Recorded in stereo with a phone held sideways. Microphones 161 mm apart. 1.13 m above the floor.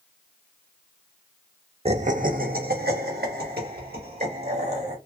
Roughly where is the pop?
I don't hear a pop.